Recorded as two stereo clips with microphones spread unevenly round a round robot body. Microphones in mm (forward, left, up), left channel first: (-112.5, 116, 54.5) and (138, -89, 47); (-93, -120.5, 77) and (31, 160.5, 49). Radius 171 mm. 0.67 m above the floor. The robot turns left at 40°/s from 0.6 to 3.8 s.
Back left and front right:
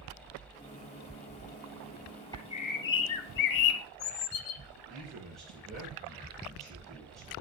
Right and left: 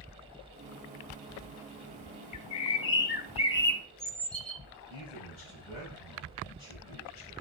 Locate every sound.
2.3 s a bird: 140° right, 0.6 m; by 4.6 s 160° left, 0.6 m
4.9 s a man speaking: 130° right, 6.5 m